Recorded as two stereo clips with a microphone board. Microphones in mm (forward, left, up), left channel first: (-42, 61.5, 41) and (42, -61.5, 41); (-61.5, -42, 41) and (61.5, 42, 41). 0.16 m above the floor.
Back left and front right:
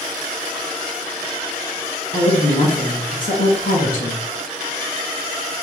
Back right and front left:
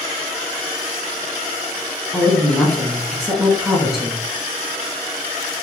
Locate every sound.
2.1 s a woman speaking: 125° left, 2.0 m